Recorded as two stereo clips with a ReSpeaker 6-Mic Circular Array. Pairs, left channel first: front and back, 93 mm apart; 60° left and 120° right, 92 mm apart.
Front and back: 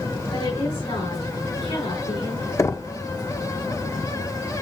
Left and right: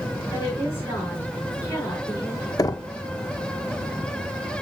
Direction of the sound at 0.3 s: 5° left.